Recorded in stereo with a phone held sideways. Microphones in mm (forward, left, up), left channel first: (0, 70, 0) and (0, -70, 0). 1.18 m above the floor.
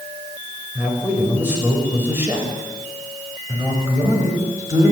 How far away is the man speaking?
About 6 m.